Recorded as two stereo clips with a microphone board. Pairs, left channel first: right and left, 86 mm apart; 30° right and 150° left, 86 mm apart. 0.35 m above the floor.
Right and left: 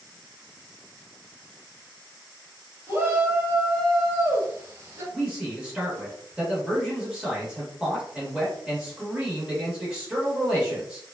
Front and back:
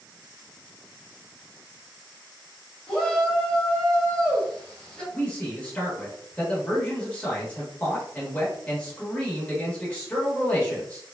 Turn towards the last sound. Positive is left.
turn(degrees=25)